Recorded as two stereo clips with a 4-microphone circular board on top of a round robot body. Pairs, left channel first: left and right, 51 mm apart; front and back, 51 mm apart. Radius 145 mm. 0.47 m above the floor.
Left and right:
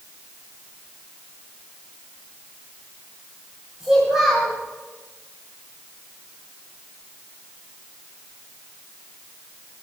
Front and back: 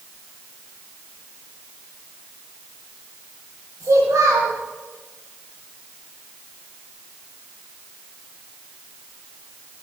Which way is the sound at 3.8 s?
170° right.